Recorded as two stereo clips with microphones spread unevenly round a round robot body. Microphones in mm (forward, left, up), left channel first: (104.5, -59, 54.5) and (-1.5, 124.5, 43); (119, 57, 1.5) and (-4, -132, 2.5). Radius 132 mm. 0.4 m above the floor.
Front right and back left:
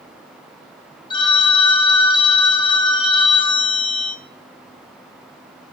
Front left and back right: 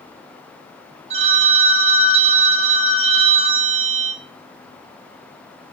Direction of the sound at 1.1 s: 110° right.